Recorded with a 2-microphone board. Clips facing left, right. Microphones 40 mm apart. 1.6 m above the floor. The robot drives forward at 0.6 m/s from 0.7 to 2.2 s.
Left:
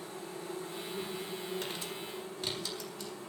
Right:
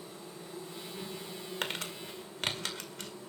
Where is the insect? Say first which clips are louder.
Left 4 dB; 80° left, 9 m; by 3.3 s 75° left (ahead or behind), 9 m.